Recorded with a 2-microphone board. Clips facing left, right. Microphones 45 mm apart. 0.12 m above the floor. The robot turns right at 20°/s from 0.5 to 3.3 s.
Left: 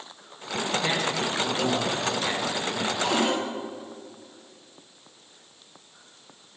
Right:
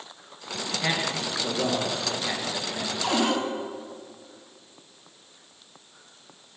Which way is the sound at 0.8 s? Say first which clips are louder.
Right 2 dB; 20° right (ahead or behind).